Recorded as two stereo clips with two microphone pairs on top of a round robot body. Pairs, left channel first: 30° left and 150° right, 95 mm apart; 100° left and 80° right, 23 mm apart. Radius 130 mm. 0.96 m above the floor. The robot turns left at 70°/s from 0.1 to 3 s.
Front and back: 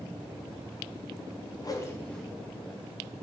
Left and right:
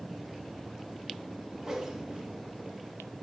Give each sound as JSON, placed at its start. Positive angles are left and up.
{"t": 1.6, "sound": "a whoosh", "azimuth_deg": -15, "distance_m": 0.8}